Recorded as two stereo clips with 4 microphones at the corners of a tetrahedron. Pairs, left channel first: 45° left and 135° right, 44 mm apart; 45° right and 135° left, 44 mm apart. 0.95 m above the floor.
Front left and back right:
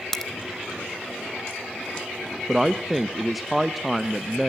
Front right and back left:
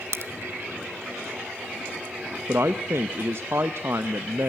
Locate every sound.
0.1 s a crack: 125° left, 0.8 m
2.5 s a man speaking: 135° left, 0.6 m